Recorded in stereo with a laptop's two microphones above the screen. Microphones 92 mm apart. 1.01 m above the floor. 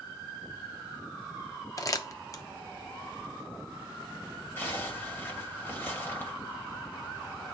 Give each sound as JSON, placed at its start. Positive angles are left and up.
{"t": 1.8, "sound": "crumpling", "side_deg": 40, "distance_m": 0.8}
{"t": 4.6, "sound": "a zipper", "side_deg": 25, "distance_m": 1.9}